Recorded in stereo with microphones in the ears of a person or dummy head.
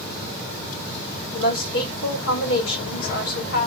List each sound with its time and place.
1.3 s a woman speaking: 65° left (ahead or behind), 1.8 m